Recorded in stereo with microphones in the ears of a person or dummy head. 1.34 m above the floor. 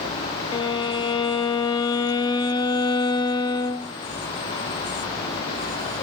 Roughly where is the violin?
Left.